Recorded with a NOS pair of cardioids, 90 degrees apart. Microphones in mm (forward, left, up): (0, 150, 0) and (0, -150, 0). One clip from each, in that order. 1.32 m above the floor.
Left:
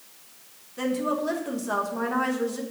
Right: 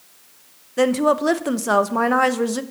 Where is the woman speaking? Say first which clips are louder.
Right 10 dB; 65° right, 1.0 m.